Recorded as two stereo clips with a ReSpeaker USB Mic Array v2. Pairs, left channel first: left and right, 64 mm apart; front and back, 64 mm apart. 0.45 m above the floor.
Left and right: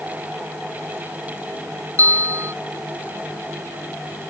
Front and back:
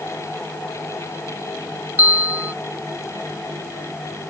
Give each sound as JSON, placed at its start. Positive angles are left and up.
{"t": 2.0, "sound": "a bell", "azimuth_deg": -125}